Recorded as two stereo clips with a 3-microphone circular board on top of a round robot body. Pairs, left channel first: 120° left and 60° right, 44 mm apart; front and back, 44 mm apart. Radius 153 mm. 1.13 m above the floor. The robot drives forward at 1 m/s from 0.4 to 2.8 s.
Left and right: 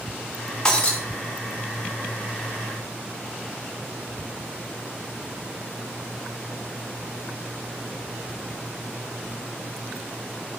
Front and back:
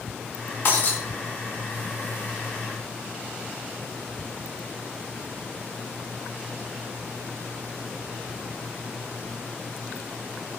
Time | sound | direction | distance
0.7 | breaking glass | 45° left | 1.0 m